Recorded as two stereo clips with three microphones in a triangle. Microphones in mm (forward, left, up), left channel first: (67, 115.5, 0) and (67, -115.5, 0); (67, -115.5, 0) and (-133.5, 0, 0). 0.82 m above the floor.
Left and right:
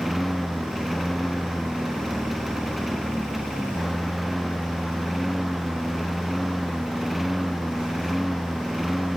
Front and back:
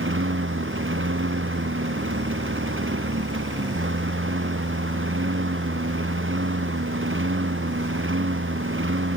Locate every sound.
0.0 s a lawn mower: straight behind